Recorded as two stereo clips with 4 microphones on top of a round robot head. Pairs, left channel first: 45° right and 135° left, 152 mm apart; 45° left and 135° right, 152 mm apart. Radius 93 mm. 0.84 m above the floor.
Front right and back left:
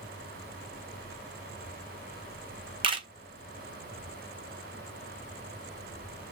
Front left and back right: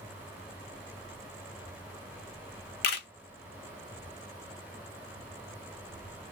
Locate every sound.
2.8 s a camera shutter: 75° left, 0.7 m